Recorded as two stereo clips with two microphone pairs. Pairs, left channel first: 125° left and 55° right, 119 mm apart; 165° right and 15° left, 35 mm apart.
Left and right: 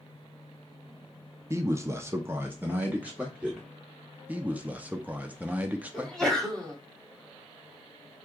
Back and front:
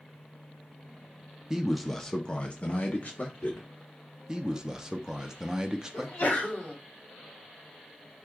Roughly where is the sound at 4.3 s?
Ahead.